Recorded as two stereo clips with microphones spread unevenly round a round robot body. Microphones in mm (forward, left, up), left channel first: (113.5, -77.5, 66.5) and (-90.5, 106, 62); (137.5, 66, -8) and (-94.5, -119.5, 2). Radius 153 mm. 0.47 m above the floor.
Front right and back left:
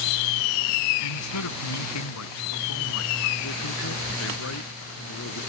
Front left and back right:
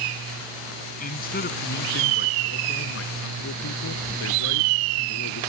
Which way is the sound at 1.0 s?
25° right.